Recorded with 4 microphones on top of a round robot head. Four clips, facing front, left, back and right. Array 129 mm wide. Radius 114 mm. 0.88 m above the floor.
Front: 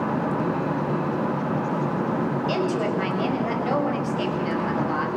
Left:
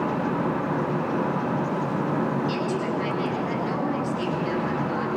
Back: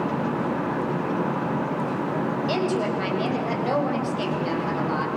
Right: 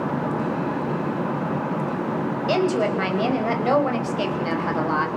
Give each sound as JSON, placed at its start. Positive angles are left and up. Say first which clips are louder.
{"t": 2.5, "sound": "a woman speaking", "louder": "right 5 dB, back 1 dB", "azimuth_deg": -100, "distance_m": 7.0}